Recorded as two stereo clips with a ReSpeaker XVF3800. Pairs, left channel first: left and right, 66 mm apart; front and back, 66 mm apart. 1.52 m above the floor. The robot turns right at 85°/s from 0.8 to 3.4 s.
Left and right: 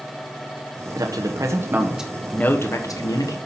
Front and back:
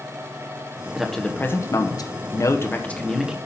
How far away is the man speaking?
About 1.3 m.